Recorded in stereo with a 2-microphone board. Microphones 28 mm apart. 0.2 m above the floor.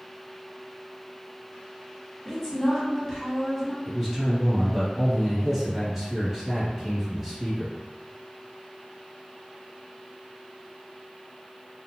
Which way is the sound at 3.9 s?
20° right (ahead or behind).